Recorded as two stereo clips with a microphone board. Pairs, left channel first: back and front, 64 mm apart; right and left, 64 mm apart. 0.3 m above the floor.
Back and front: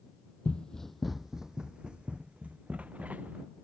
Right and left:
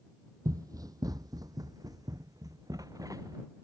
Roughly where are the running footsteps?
Left.